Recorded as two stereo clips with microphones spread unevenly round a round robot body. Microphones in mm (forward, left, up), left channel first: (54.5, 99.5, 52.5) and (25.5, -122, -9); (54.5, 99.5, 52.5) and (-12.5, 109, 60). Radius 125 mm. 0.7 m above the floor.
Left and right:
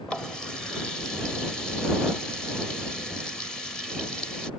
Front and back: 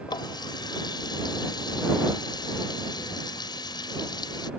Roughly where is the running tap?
Ahead.